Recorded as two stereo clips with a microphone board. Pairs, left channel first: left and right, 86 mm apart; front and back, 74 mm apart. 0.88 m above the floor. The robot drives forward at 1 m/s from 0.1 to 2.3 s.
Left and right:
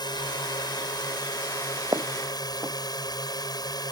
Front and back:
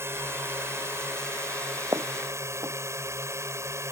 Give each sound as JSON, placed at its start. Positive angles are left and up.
{"t": 0.0, "sound": "a drone", "azimuth_deg": 125}
{"t": 1.9, "sound": "footsteps", "azimuth_deg": -135}